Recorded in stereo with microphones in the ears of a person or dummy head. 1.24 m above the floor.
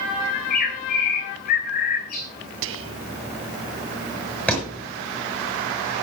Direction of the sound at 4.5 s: 5° left (ahead or behind).